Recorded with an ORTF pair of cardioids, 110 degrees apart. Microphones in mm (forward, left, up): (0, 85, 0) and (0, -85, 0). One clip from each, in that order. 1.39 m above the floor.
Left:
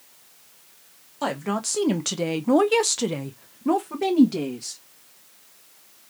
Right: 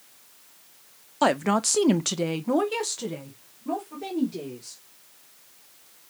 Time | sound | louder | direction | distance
1.2 | a woman speaking | right 5 dB | 40° right | 0.9 m